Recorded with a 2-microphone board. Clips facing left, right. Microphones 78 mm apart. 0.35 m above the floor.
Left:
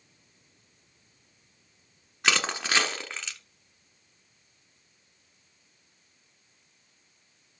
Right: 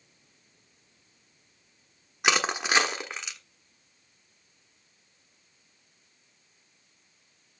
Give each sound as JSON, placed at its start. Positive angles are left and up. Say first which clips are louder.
{"t": 2.2, "sound": "crushing", "louder": "right 2 dB", "side_deg": -15, "distance_m": 1.3}